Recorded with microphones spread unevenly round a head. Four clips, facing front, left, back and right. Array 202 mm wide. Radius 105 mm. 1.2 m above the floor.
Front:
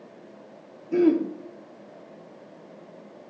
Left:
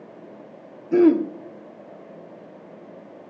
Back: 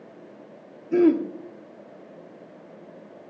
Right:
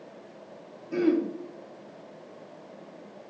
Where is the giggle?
I don't hear a giggle.